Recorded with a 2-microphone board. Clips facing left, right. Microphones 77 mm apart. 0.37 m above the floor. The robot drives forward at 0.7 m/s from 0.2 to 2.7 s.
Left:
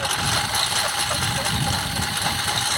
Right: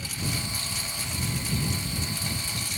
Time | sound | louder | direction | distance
0.0 | a lawn mower | left 10 dB | 70° left (ahead or behind) | ?